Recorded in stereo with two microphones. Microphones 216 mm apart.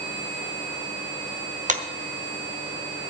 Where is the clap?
35° right (ahead or behind), 1.5 m.